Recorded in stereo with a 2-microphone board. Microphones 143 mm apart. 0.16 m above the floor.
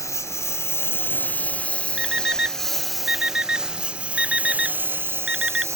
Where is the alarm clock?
5° right (ahead or behind).